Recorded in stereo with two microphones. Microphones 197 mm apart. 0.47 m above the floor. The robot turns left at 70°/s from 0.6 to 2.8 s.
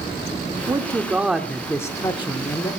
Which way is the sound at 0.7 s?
25° right (ahead or behind).